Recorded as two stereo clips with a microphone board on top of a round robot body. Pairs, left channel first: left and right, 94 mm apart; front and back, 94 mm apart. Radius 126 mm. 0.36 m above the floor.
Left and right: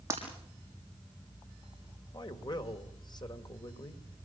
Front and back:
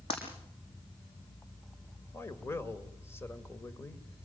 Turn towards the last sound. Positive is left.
turn(degrees=60)